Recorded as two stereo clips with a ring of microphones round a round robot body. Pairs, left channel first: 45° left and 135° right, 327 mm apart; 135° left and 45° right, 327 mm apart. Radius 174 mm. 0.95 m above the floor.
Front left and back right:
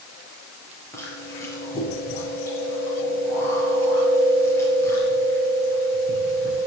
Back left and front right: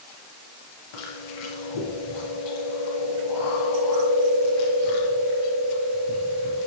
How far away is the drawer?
No drawer in this recording.